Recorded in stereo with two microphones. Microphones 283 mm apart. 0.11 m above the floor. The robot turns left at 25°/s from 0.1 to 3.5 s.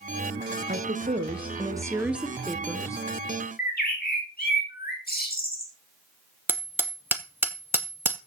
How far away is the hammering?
About 1.1 m.